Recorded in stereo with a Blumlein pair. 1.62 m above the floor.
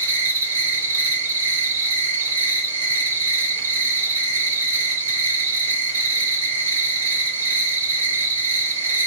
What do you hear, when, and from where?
0.0 s an insect: 65° right, 0.9 m